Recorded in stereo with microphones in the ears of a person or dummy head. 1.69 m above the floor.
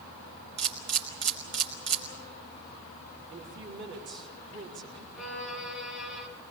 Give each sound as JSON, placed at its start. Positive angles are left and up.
{"t": 0.6, "sound": "a camera shutter", "side_deg": -60, "distance_m": 3.0}
{"t": 3.3, "sound": "a woman speaking", "side_deg": -60, "distance_m": 4.0}
{"t": 5.2, "sound": "a violin", "side_deg": 0, "distance_m": 5.0}